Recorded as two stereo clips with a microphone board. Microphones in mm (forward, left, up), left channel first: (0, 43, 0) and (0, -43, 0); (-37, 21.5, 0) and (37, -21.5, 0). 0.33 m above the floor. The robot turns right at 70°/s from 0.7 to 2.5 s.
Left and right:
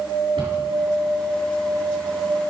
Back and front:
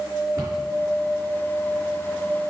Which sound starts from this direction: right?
A cupboard door, at 0.4 s.